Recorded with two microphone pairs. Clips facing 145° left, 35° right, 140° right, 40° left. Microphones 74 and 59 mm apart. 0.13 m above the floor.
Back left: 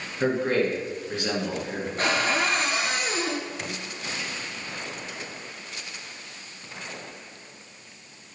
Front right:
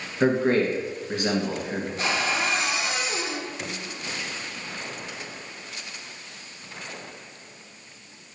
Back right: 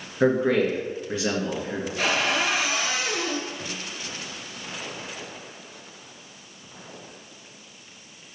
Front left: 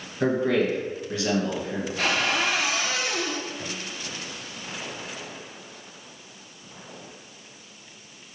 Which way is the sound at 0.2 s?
90° right.